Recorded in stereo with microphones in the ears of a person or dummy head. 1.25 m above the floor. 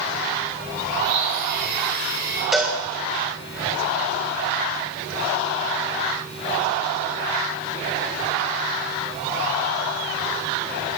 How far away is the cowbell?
About 2.5 m.